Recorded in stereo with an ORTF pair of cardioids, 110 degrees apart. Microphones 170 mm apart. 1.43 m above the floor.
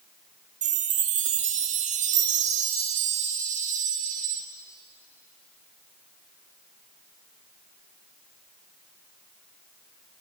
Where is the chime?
50° right, 0.7 m.